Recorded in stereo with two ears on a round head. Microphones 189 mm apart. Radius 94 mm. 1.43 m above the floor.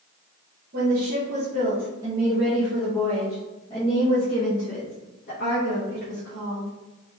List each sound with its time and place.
0.7 s a woman speaking: 50° right (ahead or behind), 1.4 m; by 6.7 s 55° left (ahead or behind), 2.5 m